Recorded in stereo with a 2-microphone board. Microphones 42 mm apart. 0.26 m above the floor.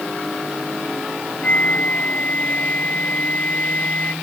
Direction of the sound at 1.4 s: 35° left (ahead or behind).